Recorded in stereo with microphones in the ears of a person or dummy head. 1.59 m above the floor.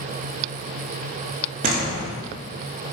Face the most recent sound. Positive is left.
turn(degrees=-45)  # may be behind; listen again after turning